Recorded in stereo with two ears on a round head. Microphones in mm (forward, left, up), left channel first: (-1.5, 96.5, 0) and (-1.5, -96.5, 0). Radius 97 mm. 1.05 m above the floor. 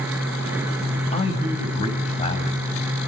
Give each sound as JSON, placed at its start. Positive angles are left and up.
{"t": 1.1, "sound": "a man speaking", "side_deg": 30, "distance_m": 6.0}